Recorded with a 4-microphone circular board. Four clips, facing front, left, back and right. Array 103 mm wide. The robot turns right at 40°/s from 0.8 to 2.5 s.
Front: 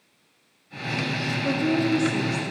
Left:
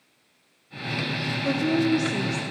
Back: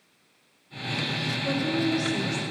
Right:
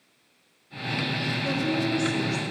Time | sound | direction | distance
1.4 | a woman speaking | 40° left | 1.1 m